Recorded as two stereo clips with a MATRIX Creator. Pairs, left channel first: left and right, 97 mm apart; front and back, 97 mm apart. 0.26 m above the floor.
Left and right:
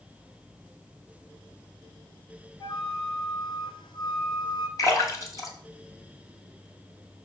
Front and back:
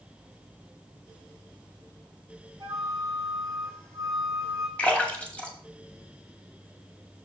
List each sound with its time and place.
2.6 s a flute: 120° left, 2 m
4.8 s a splash: 70° left, 1.9 m